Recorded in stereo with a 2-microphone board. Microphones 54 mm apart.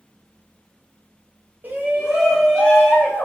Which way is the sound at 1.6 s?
35° right (ahead or behind).